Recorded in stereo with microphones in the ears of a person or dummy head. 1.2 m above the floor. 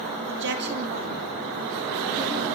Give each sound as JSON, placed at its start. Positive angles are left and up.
{"t": 0.3, "sound": "a woman speaking", "side_deg": -65, "distance_m": 3.0}